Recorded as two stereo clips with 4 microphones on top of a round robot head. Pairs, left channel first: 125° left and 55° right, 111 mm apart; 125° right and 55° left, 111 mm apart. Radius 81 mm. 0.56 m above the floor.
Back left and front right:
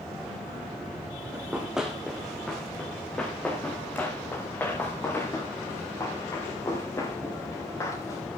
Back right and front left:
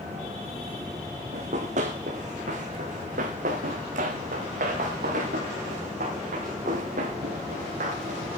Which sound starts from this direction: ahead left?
Running footsteps, at 1.3 s.